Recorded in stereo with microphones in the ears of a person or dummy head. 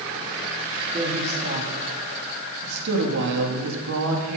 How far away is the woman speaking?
About 4 m.